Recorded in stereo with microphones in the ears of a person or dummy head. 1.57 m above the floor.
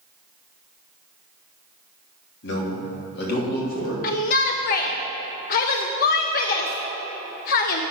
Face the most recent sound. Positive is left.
turn(degrees=50)  # may be behind; listen again after turning